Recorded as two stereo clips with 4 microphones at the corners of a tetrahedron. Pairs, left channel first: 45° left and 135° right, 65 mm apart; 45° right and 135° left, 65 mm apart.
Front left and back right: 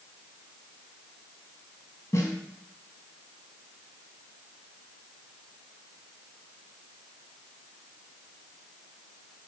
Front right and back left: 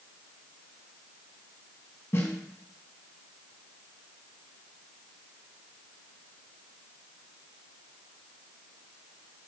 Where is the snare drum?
Straight ahead, 4 m.